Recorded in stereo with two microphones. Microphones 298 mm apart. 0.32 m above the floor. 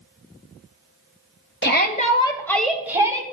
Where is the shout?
35° left (ahead or behind), 1.7 m; by 3.2 s 15° right (ahead or behind), 2.0 m.